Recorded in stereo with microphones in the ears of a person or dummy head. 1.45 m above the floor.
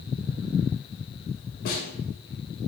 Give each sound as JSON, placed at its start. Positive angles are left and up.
{"t": 1.6, "sound": "a snare drum", "side_deg": 50, "distance_m": 2.0}